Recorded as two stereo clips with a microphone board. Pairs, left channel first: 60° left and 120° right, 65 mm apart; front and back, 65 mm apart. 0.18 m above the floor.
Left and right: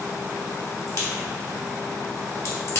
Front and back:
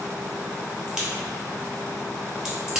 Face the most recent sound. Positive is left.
turn(degrees=100)